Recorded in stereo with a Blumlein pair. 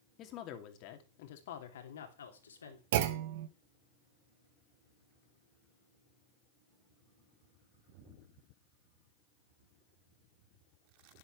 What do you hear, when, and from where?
0.2 s a woman speaking: 35° left, 2.5 m; by 2.8 s 75° left, 3 m
2.9 s a clunk: 55° right, 1.3 m